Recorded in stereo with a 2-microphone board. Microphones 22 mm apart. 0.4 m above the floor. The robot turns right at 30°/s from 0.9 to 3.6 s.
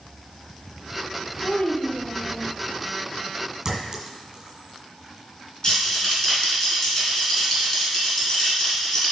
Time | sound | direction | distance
1.4 | a child speaking | 50° left (ahead or behind) | 1.8 m
3.6 | a clink | 30° right (ahead or behind) | 2 m
5.6 | a rattle | 30° left (ahead or behind) | 2.5 m